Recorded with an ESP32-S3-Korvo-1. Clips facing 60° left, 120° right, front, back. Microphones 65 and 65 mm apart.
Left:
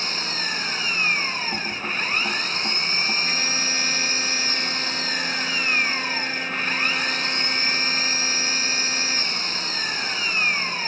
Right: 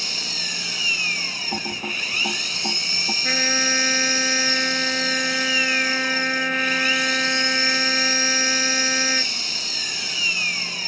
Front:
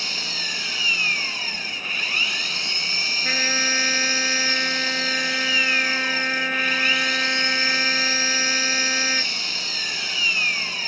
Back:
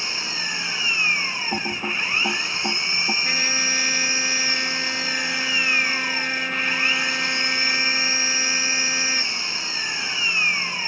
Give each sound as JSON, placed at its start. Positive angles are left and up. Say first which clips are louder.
{"t": 0.0, "sound": "an engine running", "louder": "left 4 dB, back 1 dB", "azimuth_deg": 115}
{"t": 1.5, "sound": "typing on a keyboard", "louder": "left 1 dB, back 4 dB", "azimuth_deg": 170}
{"t": 3.2, "sound": "a trumpet", "louder": "right 4 dB, front 1 dB", "azimuth_deg": -70}